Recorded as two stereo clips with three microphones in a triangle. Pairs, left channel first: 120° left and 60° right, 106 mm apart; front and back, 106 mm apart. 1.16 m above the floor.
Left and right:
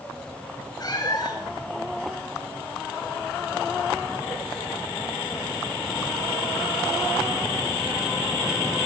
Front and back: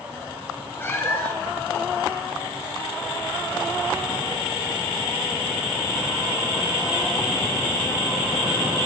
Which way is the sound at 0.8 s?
70° left.